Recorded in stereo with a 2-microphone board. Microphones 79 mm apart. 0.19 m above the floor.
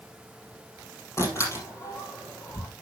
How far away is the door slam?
About 4.5 m.